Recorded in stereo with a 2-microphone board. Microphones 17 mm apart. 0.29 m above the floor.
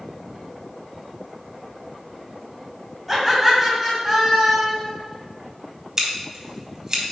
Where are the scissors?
30° right (ahead or behind), 2 m.